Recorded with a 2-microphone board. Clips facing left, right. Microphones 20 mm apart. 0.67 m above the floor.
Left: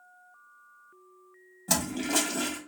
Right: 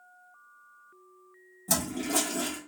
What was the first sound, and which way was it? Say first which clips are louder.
A toilet flushing: left 1 dB; 25° left (ahead or behind).